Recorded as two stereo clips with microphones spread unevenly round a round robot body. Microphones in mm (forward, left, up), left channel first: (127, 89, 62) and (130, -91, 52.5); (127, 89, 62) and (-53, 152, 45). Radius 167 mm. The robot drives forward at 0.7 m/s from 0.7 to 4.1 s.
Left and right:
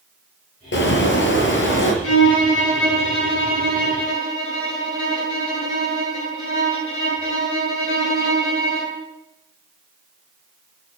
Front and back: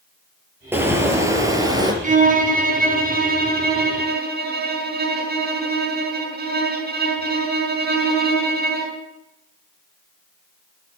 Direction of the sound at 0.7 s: 80° left.